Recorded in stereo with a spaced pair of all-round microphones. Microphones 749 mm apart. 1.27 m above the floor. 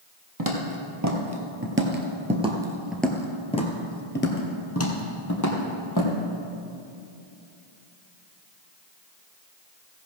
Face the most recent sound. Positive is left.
turn(degrees=25)  # may be behind; listen again after turning